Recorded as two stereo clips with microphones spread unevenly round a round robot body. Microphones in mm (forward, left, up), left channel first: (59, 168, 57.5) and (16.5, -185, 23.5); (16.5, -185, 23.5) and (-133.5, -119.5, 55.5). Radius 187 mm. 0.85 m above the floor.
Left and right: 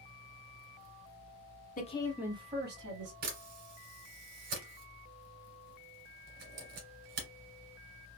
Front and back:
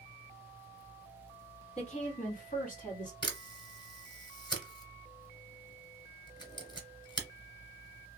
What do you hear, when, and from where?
1.8 s a woman speaking: 15° left, 1.2 m; by 3.1 s 55° right, 1.8 m
3.2 s a camera shutter: 90° right, 1.7 m